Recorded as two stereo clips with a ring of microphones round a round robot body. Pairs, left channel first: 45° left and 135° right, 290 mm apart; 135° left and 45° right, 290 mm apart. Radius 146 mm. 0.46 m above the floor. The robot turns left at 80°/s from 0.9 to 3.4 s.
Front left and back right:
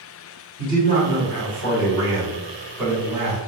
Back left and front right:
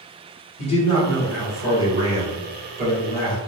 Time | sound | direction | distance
0.6 | a man speaking | 95° left | 1.3 m